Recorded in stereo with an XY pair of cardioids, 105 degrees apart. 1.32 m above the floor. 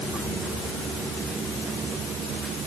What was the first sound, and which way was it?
Only background noise.